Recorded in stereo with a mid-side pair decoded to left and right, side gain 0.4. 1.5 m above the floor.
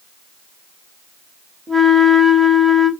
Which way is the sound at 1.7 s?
25° right.